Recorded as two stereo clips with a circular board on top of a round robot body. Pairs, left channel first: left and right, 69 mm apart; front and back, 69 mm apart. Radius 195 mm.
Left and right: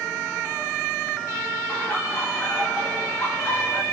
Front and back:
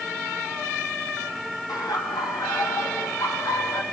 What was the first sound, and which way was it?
Laughter, 25° left.